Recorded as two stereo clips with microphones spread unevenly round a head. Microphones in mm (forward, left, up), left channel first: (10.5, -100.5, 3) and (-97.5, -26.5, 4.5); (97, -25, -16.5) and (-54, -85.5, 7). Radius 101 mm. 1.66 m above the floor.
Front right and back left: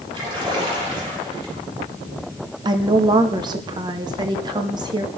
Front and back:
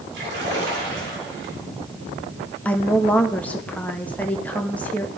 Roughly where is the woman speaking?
Left.